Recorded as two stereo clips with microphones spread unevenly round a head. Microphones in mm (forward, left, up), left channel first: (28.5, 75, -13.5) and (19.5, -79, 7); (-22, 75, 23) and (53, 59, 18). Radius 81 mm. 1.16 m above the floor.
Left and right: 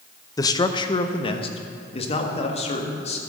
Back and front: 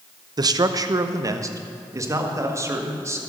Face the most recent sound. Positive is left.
turn(degrees=40)